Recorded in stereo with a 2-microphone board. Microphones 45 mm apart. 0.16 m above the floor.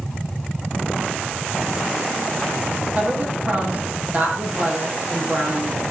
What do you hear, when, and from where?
3.0 s a woman speaking: 35° right (ahead or behind), 7.5 m